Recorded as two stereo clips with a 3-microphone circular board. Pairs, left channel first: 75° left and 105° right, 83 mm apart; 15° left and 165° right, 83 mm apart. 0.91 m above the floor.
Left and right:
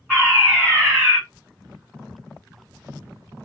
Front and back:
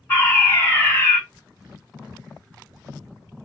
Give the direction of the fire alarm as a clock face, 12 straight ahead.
12 o'clock.